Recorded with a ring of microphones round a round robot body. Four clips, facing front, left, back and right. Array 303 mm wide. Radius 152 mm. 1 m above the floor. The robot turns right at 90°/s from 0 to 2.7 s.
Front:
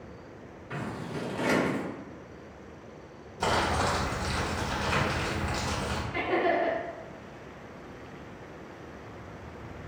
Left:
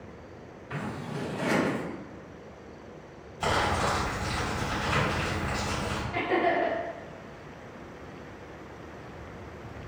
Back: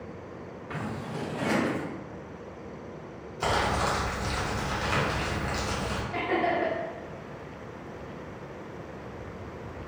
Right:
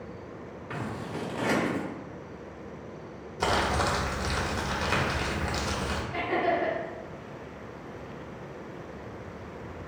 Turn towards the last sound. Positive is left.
turn(degrees=-175)